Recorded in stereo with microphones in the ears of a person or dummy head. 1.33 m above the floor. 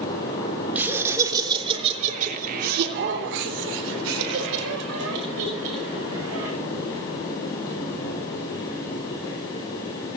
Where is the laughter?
5° right (ahead or behind), 3.5 m; by 6.5 s 85° right, 7 m.